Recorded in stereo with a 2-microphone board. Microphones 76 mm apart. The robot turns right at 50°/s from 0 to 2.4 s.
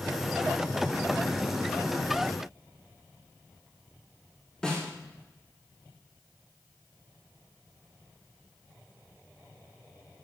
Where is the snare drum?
10° left (ahead or behind), 4 m.